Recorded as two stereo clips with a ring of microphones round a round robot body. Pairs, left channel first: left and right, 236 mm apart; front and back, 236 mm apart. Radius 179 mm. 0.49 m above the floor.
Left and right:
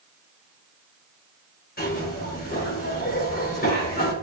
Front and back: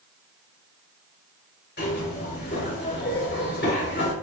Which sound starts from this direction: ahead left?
A zipper, at 1.8 s.